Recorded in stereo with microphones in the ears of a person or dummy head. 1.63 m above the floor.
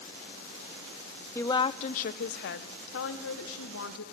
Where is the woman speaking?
10° left (ahead or behind), 0.6 m; by 4.0 s 80° left, 1.8 m.